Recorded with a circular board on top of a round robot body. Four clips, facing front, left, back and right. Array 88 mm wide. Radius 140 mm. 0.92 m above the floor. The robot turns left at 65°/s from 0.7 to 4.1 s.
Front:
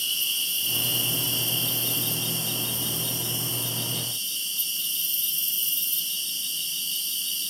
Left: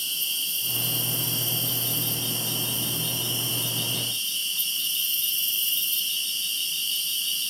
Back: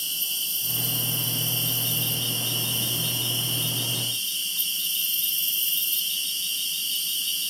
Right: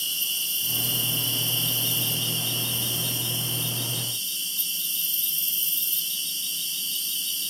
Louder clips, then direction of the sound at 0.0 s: Even, front 3 dB; 10° right.